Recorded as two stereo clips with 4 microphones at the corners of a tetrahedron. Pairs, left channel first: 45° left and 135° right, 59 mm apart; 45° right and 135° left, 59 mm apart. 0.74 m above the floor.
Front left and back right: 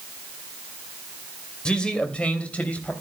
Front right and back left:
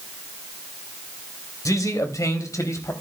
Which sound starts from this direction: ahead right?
A man speaking, at 1.6 s.